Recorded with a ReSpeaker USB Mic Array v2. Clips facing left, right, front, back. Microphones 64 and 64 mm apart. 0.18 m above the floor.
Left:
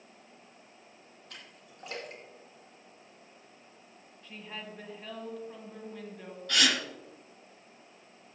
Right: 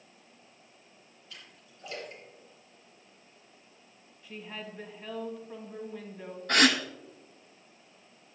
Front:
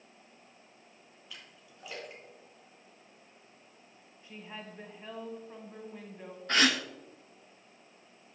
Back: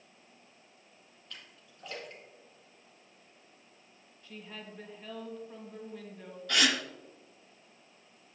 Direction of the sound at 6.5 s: 50° right.